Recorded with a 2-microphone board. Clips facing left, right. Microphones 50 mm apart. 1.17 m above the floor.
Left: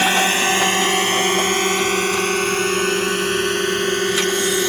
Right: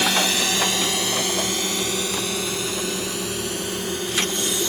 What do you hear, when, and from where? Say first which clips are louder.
0.0 s a drone: left 5 dB; 35° left (ahead or behind); by 4.7 s 60° left (ahead or behind)